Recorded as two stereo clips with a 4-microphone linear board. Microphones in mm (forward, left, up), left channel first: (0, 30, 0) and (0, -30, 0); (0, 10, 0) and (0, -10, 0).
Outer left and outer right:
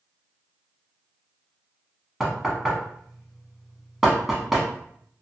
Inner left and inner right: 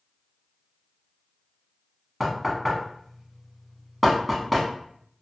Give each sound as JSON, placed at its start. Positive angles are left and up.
{"t": 2.2, "sound": "knocking", "side_deg": -5, "distance_m": 0.8}